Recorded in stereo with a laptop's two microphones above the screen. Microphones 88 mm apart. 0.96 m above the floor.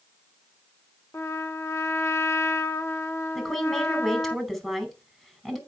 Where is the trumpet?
30° left (ahead or behind), 0.9 m.